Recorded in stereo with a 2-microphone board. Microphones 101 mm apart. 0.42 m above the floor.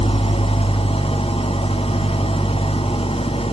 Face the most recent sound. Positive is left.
turn(degrees=75)  # may be behind; listen again after turning